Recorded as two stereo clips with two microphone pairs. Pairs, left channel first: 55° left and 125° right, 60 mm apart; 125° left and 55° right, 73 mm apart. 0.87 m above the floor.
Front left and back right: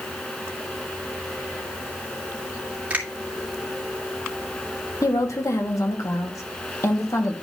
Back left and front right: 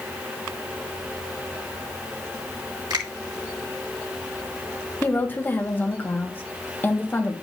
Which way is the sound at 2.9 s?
60° right.